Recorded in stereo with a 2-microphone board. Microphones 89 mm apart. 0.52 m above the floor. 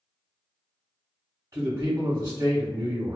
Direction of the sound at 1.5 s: 35° right (ahead or behind).